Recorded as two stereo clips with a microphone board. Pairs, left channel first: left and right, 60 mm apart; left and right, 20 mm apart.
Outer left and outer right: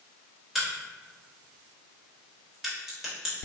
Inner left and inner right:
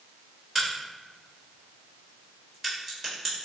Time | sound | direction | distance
0.6 | a crack | 5° right (ahead or behind) | 1.3 m